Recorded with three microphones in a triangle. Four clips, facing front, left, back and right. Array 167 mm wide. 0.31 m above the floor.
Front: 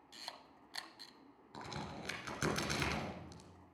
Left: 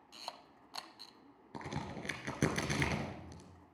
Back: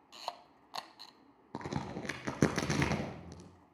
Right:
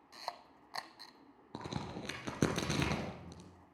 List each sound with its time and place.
0.1 s a camera shutter: 140° right, 0.7 m
1.5 s a crack: 160° right, 1.9 m